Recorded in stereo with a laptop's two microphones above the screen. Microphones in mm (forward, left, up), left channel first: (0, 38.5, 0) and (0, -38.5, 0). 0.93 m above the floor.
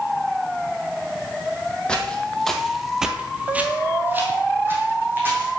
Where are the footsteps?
15° left (ahead or behind), 1.5 m; by 5.5 s 25° right (ahead or behind), 2 m.